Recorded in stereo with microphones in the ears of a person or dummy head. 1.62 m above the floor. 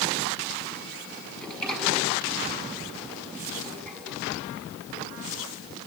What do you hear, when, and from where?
1.4 s a sliding door: centre (ahead or behind), 7.5 m